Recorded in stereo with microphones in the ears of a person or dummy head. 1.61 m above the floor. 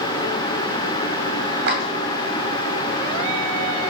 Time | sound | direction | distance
1.7 | a clap | 55° right (ahead or behind) | 2.5 m